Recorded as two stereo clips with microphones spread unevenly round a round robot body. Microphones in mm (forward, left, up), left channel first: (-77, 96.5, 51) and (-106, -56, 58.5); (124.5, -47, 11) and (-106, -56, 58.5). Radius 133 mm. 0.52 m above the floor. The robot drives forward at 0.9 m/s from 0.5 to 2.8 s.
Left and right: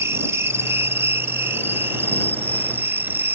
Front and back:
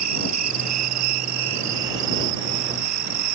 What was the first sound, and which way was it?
An insect, 175° right.